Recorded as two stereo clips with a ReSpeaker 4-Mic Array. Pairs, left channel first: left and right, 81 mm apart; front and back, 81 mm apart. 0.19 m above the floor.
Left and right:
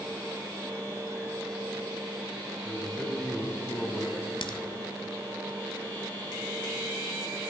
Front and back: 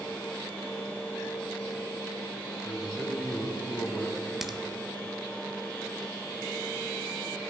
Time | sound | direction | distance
2.6 | a man speaking | 105° right | 1.5 m
4.4 | a crack | 95° left | 0.6 m